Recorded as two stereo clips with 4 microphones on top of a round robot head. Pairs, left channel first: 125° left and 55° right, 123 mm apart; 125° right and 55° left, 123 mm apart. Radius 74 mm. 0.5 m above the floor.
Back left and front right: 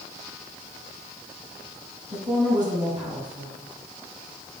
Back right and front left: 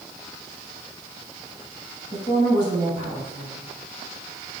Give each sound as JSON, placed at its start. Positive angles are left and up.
{"t": 2.1, "sound": "a woman speaking", "azimuth_deg": 0, "distance_m": 4.5}